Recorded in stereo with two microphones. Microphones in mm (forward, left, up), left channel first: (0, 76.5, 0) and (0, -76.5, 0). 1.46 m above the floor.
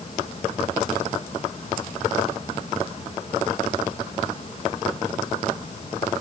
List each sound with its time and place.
Only background noise.